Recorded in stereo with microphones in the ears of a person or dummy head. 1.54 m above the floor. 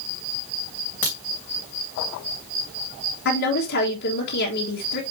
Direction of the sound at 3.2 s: 60° left (ahead or behind).